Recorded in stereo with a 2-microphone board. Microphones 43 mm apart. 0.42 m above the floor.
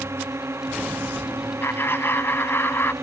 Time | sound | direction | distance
0.0 | a drone | 80° right | ?
1.6 | laughter | 55° left (ahead or behind) | ?